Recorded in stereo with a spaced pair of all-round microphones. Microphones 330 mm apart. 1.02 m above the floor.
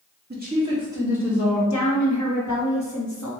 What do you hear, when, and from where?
0.3 s a woman speaking: 35° right (ahead or behind), 1.4 m; by 1.6 s centre (ahead or behind), 3 m
1.7 s a woman speaking: 60° left (ahead or behind), 1.1 m